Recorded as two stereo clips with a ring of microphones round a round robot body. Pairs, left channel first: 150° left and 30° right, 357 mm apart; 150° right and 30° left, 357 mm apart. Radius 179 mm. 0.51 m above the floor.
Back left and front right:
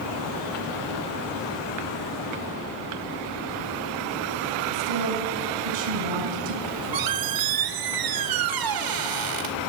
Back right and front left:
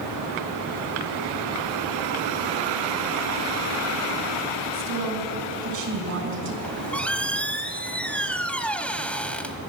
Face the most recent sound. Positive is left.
turn(degrees=-65)